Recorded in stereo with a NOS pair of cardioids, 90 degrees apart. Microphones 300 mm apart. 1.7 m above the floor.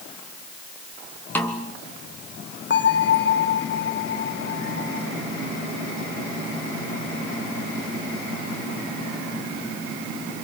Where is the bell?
40° left, 1.5 m.